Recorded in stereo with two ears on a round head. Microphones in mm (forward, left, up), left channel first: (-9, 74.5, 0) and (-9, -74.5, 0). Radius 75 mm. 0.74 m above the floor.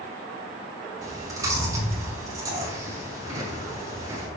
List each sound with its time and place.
1.0 s chewing: 20° right (ahead or behind), 5.5 m